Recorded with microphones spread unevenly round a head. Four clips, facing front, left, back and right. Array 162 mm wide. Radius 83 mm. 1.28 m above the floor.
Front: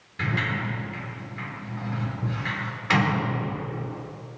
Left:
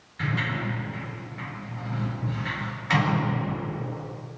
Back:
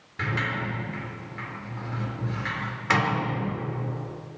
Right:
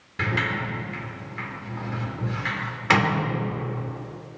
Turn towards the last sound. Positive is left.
turn(degrees=-95)